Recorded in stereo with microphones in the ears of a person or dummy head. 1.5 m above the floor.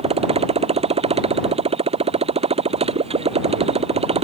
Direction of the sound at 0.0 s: 30° right (ahead or behind).